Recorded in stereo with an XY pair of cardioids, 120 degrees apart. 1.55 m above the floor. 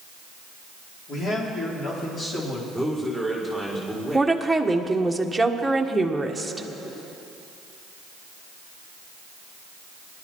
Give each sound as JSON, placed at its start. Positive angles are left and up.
{"t": 1.1, "sound": "a man speaking", "azimuth_deg": 45, "distance_m": 4.5}
{"t": 2.7, "sound": "a man speaking", "azimuth_deg": 20, "distance_m": 5.5}
{"t": 4.1, "sound": "a woman speaking", "azimuth_deg": -5, "distance_m": 1.5}